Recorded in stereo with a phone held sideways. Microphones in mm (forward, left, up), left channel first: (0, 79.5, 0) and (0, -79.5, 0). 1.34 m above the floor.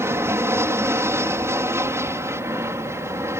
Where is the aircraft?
15° right (ahead or behind).